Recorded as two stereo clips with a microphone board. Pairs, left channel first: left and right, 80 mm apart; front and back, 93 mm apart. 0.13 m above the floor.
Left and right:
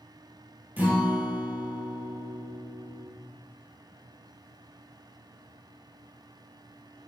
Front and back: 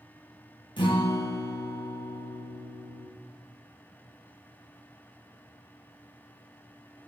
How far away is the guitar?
About 2 m.